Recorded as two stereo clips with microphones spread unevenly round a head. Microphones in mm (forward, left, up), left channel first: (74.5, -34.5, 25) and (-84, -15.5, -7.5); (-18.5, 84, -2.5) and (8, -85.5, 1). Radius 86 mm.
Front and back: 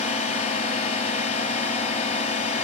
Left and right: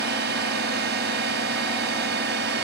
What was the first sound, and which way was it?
A drone, 50° right.